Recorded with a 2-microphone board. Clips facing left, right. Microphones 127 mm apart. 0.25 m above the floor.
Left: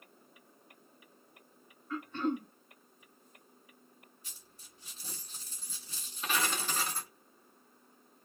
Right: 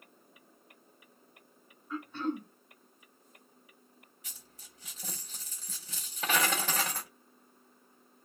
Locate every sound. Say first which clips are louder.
1.9 s throat clearing: left 1 dB; 10° right (ahead or behind), 1.9 m
4.2 s a dropped coin: right 2 dB; 80° right, 1.4 m